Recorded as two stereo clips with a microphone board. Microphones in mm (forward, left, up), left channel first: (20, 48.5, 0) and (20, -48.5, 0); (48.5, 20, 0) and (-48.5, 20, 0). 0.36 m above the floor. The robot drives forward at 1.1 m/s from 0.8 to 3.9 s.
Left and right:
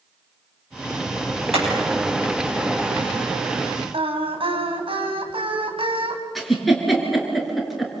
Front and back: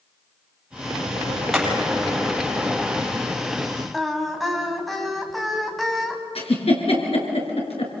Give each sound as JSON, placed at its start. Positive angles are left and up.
{"t": 1.5, "sound": "hammering", "azimuth_deg": -90, "distance_m": 9.0}
{"t": 3.9, "sound": "singing", "azimuth_deg": -90, "distance_m": 2.5}
{"t": 6.3, "sound": "a giggle", "azimuth_deg": 0, "distance_m": 4.0}